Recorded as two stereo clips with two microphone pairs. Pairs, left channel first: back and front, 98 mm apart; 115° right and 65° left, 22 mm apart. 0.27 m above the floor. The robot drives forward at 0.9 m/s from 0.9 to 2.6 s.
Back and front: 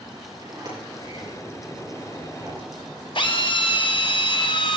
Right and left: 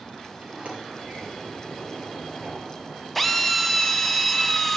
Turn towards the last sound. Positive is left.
turn(degrees=160)